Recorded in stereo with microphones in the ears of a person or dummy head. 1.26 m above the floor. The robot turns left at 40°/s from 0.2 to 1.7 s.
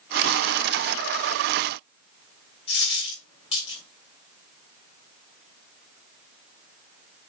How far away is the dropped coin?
About 2 m.